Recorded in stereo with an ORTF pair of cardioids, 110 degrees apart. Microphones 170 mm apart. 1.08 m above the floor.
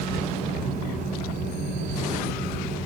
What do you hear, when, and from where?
0.0 s a fan: 60° right, 1.2 m